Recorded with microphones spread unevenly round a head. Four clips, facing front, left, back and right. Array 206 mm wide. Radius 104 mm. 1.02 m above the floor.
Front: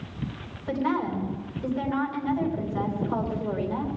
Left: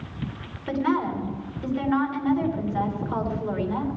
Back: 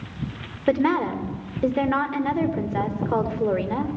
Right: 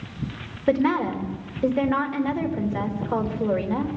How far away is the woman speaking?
About 3 m.